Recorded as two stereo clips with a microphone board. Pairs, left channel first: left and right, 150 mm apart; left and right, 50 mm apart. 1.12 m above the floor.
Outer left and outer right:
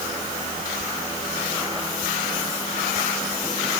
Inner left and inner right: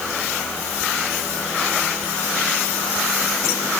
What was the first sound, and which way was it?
Only background noise.